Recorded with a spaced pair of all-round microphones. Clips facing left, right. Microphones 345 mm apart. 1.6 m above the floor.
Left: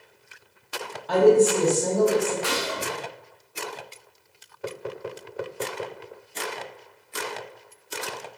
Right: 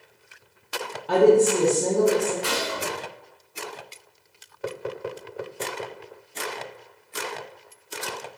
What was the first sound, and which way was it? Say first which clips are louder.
A woman speaking: even; 40° right (ahead or behind).